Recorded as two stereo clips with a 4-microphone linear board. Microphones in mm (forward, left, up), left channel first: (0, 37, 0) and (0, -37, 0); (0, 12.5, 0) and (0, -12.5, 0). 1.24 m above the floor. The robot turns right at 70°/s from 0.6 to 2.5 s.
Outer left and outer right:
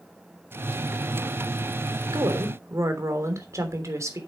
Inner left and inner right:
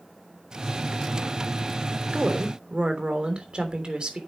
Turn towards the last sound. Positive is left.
turn(degrees=-45)  # may be behind; listen again after turning